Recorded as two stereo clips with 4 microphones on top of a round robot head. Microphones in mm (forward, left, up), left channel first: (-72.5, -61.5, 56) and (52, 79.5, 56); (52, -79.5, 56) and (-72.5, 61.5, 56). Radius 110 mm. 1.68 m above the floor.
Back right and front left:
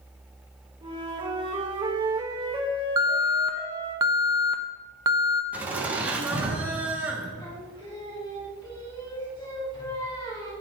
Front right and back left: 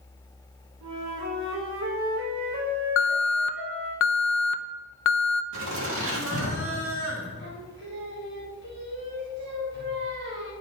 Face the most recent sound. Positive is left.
turn(degrees=160)